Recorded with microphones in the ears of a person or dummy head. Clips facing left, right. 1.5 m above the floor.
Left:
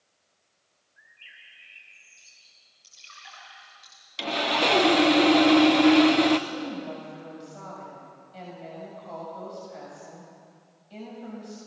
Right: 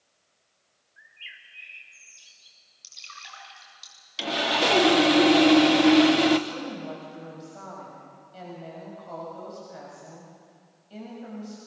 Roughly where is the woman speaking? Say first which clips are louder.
Left 1 dB; centre.